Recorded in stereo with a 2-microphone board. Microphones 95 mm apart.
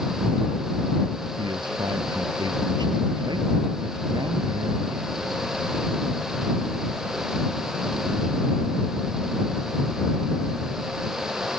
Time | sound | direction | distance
1.4 | a man speaking | 55° right (ahead or behind) | ?